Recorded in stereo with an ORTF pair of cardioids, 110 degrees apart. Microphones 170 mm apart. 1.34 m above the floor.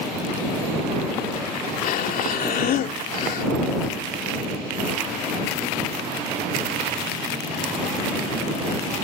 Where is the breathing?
55° left.